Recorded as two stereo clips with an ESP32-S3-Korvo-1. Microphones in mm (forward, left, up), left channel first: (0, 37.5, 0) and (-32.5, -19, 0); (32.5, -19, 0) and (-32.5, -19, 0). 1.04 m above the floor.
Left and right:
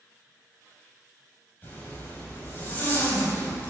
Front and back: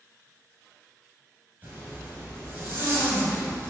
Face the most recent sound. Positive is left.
turn(degrees=120)